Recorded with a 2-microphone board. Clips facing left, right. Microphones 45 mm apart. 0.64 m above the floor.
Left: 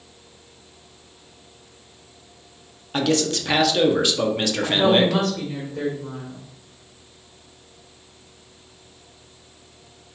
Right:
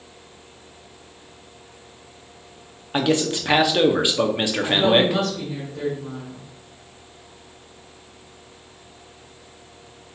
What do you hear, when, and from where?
2.9 s a man speaking: 15° right (ahead or behind), 0.6 m
4.6 s a woman speaking: 25° left (ahead or behind), 1.8 m